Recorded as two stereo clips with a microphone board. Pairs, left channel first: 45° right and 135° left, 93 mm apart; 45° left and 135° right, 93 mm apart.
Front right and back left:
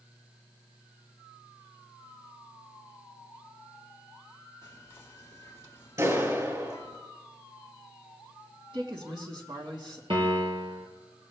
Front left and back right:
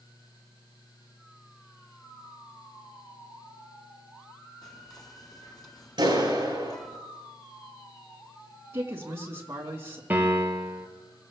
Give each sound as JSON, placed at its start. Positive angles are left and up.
{"t": 4.6, "sound": "whispering", "azimuth_deg": 10, "distance_m": 2.5}
{"t": 6.0, "sound": "a clap", "azimuth_deg": -170, "distance_m": 9.5}
{"t": 8.7, "sound": "a man speaking", "azimuth_deg": 165, "distance_m": 3.5}
{"t": 10.1, "sound": "a piano", "azimuth_deg": 155, "distance_m": 2.0}